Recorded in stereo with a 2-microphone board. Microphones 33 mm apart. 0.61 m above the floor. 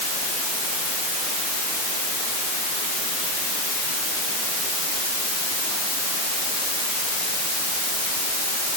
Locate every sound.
Only background noise.